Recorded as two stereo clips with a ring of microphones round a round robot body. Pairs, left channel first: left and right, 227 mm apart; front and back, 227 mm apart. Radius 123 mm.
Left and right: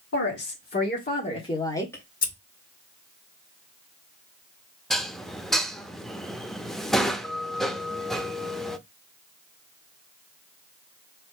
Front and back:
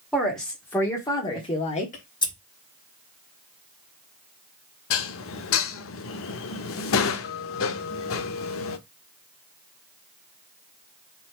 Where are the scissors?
60° left, 1.7 m.